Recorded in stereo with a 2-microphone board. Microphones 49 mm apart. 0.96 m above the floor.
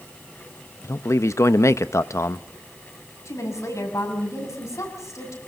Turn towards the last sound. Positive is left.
turn(degrees=85)